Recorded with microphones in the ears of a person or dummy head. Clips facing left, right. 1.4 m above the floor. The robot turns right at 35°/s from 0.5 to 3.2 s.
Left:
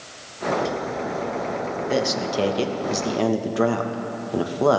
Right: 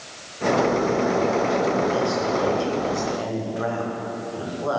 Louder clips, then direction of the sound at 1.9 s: Right 1 dB; 65° left.